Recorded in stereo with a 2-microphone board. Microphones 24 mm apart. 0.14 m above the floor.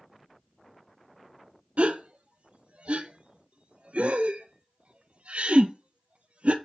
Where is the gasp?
65° right (ahead or behind), 0.5 m.